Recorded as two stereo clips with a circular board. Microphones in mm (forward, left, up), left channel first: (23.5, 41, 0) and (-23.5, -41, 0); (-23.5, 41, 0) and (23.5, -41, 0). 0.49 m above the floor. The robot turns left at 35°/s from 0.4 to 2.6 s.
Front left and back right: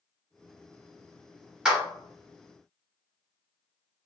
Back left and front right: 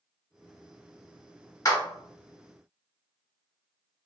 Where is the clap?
165° left, 1.3 m; by 1.8 s 160° left, 1.3 m.